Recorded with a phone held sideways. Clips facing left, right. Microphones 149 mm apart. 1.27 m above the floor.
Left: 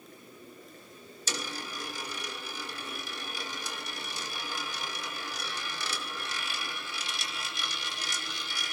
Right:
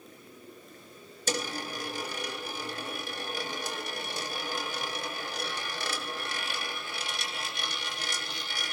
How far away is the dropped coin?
About 2 m.